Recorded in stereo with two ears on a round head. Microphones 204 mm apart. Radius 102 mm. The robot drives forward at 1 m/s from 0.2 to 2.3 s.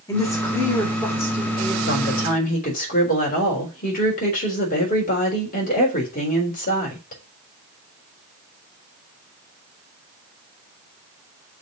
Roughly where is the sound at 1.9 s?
Left.